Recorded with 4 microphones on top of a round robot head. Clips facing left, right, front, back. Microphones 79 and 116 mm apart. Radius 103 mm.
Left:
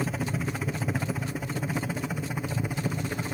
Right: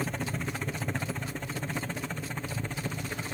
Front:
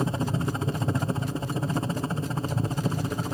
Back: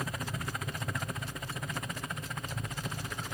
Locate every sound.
0.0 s a helicopter: 10° left; by 3.3 s 20° left